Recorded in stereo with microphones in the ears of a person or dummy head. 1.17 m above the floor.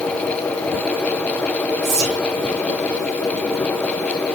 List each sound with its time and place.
1.8 s whispering: 25° right (ahead or behind), 0.8 m